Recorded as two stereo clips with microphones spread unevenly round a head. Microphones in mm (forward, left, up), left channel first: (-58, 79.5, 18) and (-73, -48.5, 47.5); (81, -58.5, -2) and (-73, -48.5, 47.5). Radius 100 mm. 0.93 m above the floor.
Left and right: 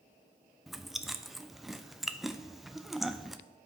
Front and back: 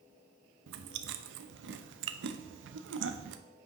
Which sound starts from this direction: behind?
Chewing, at 0.7 s.